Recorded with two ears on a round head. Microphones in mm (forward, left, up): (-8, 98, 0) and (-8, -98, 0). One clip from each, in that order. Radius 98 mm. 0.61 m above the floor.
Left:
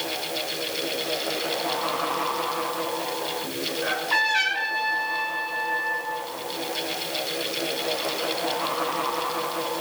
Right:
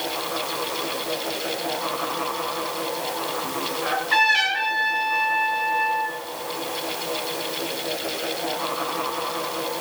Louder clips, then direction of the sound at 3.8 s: Right 4 dB; 5° right (ahead or behind).